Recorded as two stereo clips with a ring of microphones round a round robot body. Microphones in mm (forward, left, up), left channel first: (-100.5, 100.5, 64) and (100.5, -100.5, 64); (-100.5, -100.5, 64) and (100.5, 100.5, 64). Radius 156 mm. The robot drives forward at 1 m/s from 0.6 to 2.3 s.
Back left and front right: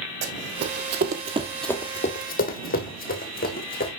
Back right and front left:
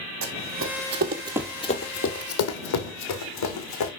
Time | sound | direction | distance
0.2 | running footsteps | 5° left | 2 m